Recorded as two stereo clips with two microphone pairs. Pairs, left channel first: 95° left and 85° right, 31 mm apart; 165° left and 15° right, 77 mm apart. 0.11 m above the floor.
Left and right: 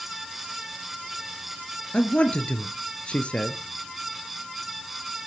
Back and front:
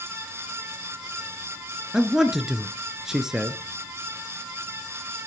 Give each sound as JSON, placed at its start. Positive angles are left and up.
{"t": 1.9, "sound": "a man speaking", "azimuth_deg": 70, "distance_m": 1.4}